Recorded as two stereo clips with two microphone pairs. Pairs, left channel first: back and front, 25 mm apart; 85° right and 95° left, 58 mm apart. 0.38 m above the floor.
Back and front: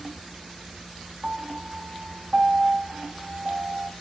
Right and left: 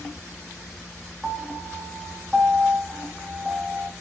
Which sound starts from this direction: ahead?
A piano, at 1.2 s.